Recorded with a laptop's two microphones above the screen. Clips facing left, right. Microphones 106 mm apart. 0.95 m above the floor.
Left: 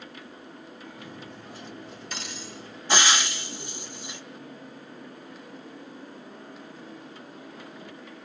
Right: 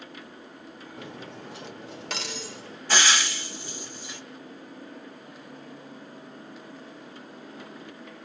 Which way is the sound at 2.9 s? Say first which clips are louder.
Left 1 dB; 20° left (ahead or behind).